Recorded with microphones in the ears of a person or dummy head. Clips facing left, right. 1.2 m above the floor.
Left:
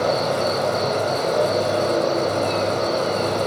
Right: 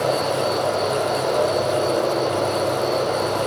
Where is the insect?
20° left (ahead or behind), 7 m.